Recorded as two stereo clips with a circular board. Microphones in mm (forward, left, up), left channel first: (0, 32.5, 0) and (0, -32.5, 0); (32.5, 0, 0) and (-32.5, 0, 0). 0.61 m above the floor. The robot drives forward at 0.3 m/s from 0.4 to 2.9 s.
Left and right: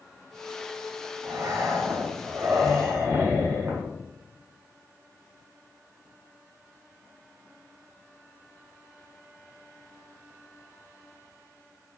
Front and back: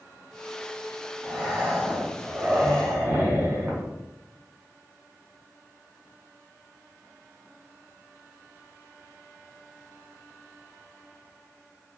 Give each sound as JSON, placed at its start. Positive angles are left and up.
{"t": 1.2, "sound": "breathing", "azimuth_deg": -100, "distance_m": 0.9}